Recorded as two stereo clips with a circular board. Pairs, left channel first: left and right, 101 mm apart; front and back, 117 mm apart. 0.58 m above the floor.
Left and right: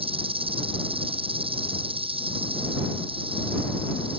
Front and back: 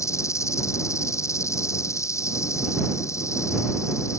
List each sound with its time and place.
0.0 s an insect: 65° right